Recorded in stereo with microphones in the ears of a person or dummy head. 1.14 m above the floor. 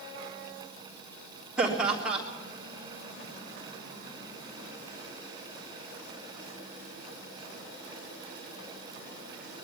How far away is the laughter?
About 3.5 m.